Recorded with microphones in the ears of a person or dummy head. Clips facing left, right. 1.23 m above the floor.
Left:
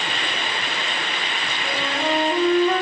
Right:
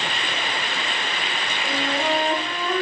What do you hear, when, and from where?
1.6 s a flute: 40° left (ahead or behind), 1.0 m